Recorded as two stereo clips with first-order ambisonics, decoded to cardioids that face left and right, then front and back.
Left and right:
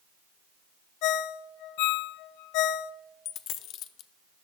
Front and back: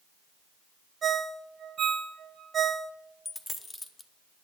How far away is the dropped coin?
About 0.5 m.